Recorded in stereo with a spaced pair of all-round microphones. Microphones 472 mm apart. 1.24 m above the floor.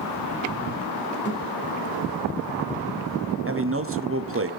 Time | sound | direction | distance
1.2 | a thud | 25° left (ahead or behind) | 2 m
3.5 | a man speaking | 30° right (ahead or behind) | 0.6 m